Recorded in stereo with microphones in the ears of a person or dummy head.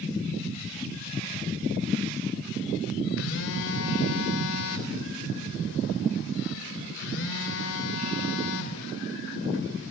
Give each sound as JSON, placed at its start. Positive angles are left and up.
{"t": 3.2, "sound": "a phone buzzing", "side_deg": 65, "distance_m": 3.0}